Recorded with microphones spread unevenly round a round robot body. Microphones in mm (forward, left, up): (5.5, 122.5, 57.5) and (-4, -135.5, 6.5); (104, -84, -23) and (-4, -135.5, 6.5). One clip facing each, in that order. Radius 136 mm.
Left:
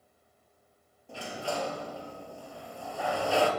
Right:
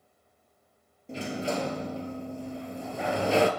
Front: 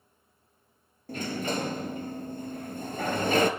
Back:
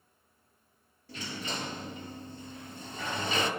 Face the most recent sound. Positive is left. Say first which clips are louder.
# right 5 dB, front 8 dB
turn(degrees=-20)